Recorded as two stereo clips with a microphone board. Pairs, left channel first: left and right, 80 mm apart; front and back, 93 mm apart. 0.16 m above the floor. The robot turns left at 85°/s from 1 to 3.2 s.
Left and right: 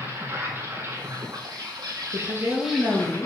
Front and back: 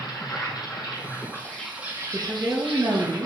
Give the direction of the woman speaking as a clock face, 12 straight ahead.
3 o'clock.